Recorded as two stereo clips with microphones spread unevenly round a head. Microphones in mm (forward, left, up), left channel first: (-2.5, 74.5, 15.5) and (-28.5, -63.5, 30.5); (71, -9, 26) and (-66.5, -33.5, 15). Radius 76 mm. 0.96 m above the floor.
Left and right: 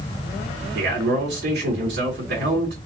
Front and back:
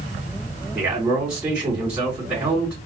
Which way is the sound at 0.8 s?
95° right.